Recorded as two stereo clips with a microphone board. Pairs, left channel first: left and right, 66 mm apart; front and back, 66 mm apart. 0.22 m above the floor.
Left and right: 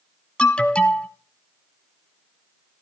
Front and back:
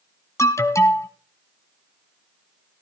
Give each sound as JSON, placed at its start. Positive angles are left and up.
{"t": 0.4, "sound": "an alarm", "azimuth_deg": 20, "distance_m": 1.1}